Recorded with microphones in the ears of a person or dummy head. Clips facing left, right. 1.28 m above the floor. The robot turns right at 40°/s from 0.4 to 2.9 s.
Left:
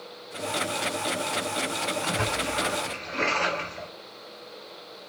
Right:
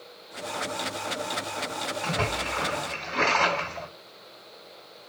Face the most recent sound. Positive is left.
turn(degrees=-95)